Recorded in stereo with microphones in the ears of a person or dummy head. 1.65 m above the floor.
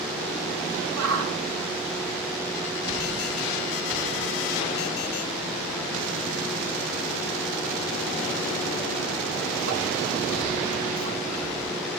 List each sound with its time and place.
1.0 s a shout: 65° right (ahead or behind), 2.5 m